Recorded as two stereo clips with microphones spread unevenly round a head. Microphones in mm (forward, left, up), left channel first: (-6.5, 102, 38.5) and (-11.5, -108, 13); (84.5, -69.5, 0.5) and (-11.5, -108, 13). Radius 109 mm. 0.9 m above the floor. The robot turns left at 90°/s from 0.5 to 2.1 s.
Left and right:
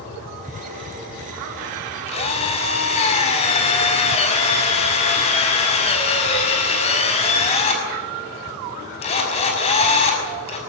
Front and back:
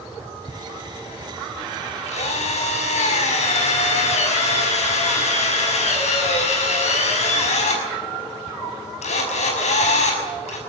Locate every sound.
2.1 s a drill: 30° left, 6 m; by 10.6 s 25° left, 6 m